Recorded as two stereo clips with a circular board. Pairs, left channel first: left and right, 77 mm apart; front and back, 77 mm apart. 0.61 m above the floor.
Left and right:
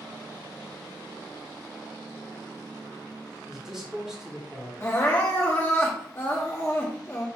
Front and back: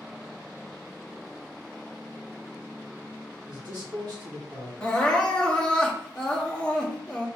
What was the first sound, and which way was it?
A man speaking, 165° right.